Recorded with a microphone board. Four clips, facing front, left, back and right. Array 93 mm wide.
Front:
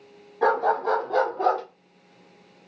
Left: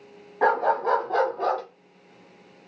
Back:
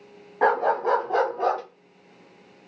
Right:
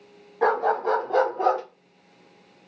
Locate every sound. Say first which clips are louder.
0.4 s a dog barking: even, back 1 dB; 160° left, 1.2 m; by 1.6 s 105° right, 1.1 m